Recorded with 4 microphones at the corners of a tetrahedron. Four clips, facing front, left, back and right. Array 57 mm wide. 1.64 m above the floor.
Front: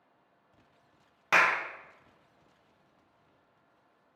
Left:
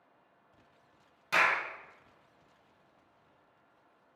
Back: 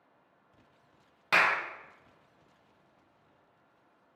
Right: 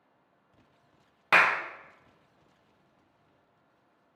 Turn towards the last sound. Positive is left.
turn(degrees=-75)